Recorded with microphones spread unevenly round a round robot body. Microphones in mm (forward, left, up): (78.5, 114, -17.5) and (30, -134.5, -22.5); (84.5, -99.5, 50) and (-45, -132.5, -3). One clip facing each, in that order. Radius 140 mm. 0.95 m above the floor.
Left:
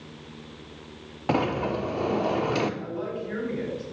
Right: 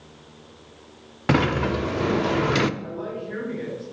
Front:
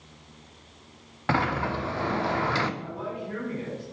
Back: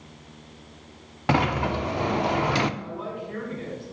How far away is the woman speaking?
About 5 m.